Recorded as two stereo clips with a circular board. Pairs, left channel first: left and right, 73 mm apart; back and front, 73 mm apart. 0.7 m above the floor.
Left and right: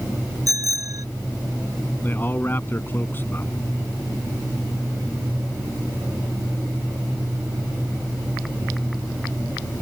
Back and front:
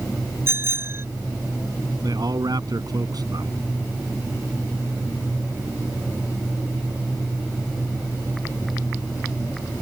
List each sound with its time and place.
0.5 s a bicycle bell: 55° right
2.0 s a man speaking: 25° left